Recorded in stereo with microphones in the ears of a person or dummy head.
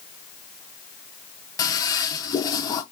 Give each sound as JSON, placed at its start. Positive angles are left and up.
{"t": 1.6, "sound": "a toilet flushing", "side_deg": 20, "distance_m": 0.7}